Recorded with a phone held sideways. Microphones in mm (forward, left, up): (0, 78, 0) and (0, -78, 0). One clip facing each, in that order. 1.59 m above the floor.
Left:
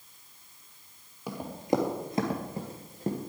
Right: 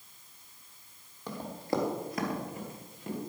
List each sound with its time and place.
1.3 s running footsteps: 10° left (ahead or behind), 2 m; by 3.2 s 45° left (ahead or behind), 2 m